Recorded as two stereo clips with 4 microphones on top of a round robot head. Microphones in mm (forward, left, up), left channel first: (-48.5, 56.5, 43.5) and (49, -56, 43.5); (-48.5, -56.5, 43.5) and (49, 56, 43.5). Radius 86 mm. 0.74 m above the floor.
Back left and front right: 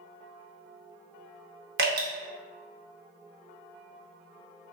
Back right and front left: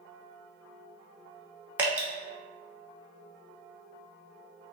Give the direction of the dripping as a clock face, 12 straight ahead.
1 o'clock.